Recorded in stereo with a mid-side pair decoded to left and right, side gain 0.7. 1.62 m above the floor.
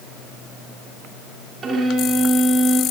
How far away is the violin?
About 5 m.